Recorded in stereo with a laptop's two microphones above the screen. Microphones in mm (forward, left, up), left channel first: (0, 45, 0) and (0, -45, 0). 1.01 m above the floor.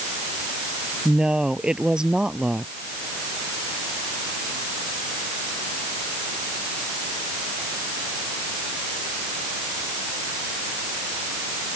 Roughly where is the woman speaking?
Centre.